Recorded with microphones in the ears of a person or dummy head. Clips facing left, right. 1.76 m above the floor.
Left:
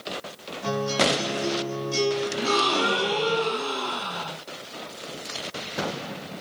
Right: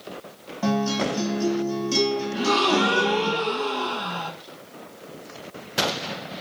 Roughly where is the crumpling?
No crumpling in this recording.